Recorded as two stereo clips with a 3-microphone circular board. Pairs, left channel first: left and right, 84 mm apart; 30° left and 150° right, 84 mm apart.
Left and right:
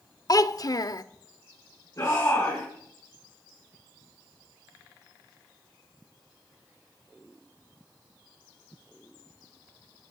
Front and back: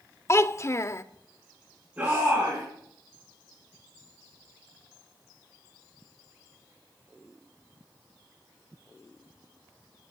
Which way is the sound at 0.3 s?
75° left.